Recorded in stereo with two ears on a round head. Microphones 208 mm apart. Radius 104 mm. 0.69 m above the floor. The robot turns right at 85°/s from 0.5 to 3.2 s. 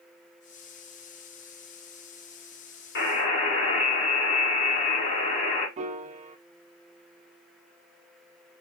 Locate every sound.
3.0 s a buzzer: 55° left (ahead or behind), 1.8 m; by 5.7 s 35° left (ahead or behind), 1.8 m
5.8 s a piano: 30° right (ahead or behind), 0.6 m